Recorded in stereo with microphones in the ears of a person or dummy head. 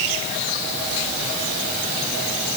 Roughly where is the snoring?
I don't hear snoring.